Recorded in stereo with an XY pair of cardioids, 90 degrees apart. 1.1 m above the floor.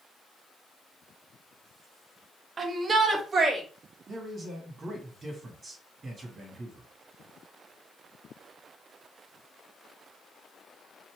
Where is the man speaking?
45° right, 1.9 m.